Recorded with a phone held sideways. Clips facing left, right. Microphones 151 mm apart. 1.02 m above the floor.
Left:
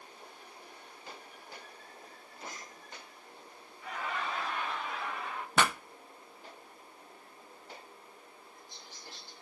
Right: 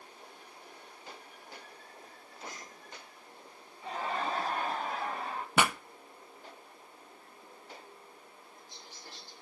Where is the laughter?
30° right (ahead or behind), 0.9 m; by 5.5 s 35° right (ahead or behind), 1.3 m.